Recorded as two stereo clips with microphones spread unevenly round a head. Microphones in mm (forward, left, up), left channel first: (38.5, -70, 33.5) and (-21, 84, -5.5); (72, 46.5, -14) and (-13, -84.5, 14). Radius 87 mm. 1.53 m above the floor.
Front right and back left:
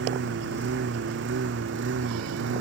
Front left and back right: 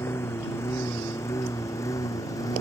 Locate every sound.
0.0 s a lawn mower: 135° left; by 2.6 s 130° left